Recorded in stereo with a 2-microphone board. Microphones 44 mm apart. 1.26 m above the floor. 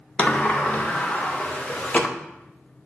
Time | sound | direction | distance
0.2 | a sliding door | 25° left (ahead or behind) | 0.8 m